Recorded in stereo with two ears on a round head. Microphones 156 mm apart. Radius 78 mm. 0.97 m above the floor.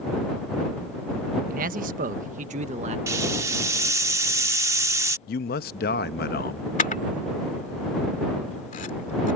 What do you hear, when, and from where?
1.5 s a man speaking: 50° right (ahead or behind); by 3.0 s 40° right (ahead or behind)
3.1 s a hiss: 15° right (ahead or behind)
5.3 s a man speaking: 55° left (ahead or behind)
6.8 s a camera shutter: 45° left (ahead or behind)